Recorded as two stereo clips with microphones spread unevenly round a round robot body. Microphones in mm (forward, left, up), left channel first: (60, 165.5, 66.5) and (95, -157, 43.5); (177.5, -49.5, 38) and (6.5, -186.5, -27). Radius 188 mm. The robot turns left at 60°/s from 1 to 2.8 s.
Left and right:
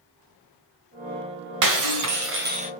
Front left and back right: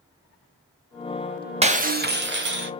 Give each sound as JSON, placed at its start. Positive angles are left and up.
{"t": 1.6, "sound": "breaking glass", "azimuth_deg": -90, "distance_m": 1.3}